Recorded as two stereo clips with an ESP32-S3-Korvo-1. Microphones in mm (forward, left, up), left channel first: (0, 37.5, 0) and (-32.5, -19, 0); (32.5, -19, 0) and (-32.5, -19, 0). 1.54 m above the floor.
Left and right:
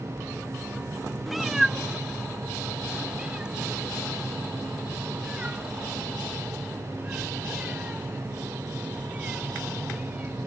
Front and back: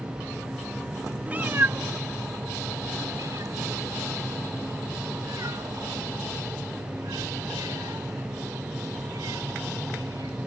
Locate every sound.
1.3 s a cat meowing: 155° left; by 10.4 s 170° left